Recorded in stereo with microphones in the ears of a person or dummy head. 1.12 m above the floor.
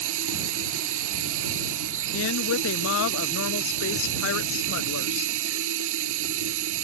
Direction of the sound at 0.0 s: 70° right (ahead or behind).